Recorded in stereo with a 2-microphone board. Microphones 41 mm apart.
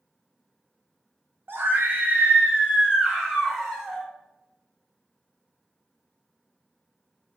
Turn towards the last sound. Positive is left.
turn(degrees=5)  # may be behind; listen again after turning